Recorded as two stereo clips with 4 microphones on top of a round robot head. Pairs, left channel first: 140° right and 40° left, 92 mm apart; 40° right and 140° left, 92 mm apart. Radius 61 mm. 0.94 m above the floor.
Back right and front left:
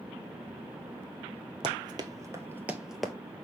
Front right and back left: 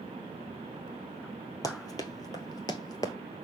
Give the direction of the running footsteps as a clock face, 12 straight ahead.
12 o'clock.